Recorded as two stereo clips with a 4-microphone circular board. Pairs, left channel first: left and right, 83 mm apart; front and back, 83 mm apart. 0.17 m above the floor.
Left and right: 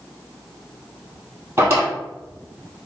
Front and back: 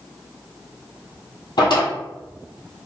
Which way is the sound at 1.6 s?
30° right.